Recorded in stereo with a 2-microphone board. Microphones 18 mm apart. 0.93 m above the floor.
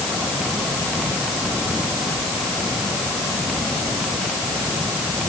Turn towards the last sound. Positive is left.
No sound to turn to.